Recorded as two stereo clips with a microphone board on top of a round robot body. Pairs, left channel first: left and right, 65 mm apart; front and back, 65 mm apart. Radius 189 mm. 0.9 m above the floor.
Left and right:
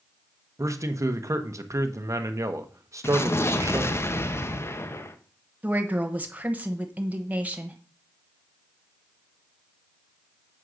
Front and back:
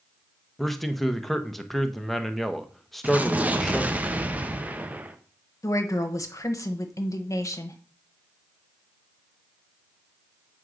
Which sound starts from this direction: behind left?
An explosion, at 3.0 s.